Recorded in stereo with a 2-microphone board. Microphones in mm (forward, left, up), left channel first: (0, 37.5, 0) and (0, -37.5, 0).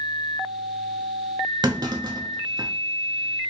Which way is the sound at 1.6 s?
75° right (ahead or behind).